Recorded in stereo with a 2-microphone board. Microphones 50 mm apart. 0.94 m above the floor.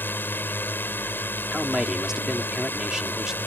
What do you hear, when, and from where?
0.0 s a drone: 40° left (ahead or behind)
1.5 s a man speaking: 10° right (ahead or behind)